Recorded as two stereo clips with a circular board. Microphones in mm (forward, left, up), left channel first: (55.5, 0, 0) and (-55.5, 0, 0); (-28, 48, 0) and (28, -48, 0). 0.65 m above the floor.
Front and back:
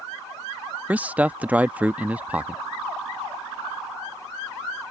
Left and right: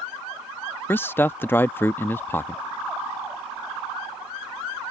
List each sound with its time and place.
0.9 s a man speaking: 135° left